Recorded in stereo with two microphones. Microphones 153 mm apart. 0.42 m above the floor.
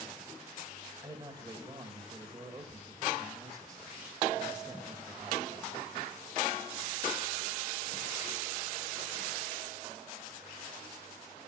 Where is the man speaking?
25° right (ahead or behind), 1.5 m.